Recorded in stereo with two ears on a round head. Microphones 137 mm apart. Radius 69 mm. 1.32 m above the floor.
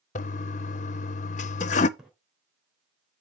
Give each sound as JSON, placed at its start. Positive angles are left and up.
{"t": 0.1, "sound": "a toilet flushing", "side_deg": 50, "distance_m": 0.5}
{"t": 2.0, "sound": "a splash", "side_deg": -5, "distance_m": 3.0}